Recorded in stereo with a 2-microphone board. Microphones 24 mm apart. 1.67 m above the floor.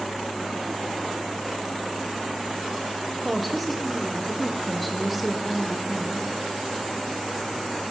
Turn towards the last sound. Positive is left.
turn(degrees=0)  # may be behind; listen again after turning